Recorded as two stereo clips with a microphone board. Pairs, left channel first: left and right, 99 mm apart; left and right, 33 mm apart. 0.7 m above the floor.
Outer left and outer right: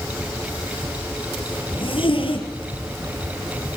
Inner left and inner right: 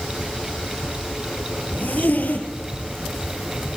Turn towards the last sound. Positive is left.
turn(degrees=65)  # may be behind; listen again after turning